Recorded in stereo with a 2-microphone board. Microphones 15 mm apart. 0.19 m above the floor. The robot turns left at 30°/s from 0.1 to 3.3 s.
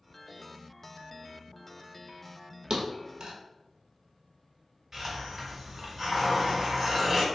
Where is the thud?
50° right (ahead or behind), 0.9 m; by 3.4 s 65° right (ahead or behind), 0.9 m.